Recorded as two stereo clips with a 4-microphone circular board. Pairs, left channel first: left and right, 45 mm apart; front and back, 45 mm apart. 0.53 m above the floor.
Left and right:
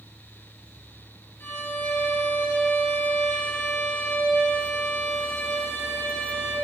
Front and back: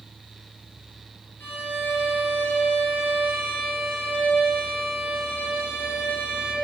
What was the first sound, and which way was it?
A violin, 45° left.